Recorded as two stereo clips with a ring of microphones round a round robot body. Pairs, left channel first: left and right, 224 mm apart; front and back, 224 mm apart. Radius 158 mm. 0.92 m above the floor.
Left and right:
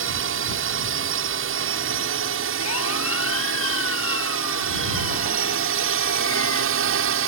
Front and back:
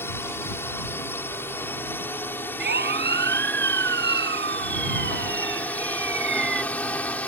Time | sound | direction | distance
0.0 | a drone | 80° right | ?
2.6 | a siren | 140° left | ?